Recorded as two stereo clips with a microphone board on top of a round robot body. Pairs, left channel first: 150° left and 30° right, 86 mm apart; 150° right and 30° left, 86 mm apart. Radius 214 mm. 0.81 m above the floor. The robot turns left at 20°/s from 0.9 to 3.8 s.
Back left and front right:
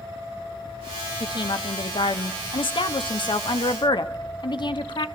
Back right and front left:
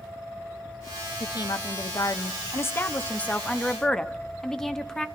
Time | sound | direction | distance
1.2 | a woman speaking | straight behind | 1.1 m